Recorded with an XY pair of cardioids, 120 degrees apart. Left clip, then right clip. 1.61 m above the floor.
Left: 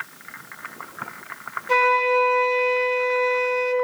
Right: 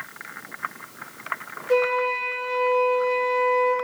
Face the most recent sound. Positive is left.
turn(degrees=65)